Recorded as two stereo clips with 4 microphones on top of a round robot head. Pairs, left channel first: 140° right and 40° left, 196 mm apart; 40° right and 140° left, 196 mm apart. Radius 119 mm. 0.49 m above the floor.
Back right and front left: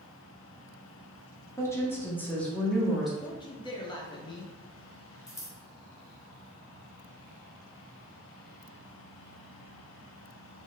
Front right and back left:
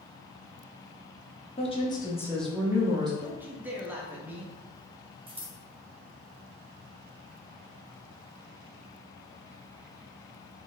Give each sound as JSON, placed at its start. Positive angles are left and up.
{"t": 1.6, "sound": "a woman speaking", "azimuth_deg": -75, "distance_m": 1.0}
{"t": 3.2, "sound": "a man speaking", "azimuth_deg": -155, "distance_m": 0.7}
{"t": 5.3, "sound": "scissors", "azimuth_deg": 160, "distance_m": 0.9}